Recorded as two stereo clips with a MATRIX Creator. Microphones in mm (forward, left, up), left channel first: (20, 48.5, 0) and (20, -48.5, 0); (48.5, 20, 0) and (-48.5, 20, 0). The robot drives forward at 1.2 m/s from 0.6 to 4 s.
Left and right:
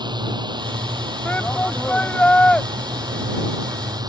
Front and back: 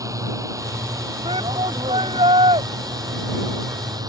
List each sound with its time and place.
0.0 s a drone: 125° right; by 4.1 s 135° right
1.2 s a shout: 165° left; by 2.7 s 170° left